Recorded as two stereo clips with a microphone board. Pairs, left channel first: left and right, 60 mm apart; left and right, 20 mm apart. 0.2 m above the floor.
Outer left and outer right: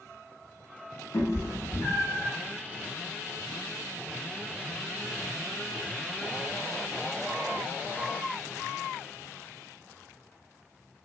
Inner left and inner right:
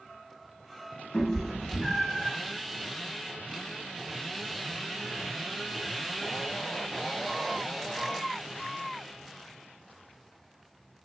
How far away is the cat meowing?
About 0.8 m.